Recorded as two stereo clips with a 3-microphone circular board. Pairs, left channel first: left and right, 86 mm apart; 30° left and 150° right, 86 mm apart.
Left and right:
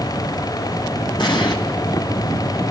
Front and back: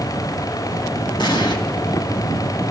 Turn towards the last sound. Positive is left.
turn(degrees=60)